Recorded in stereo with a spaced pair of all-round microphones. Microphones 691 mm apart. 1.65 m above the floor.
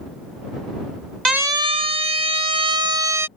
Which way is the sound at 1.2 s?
75° right (ahead or behind).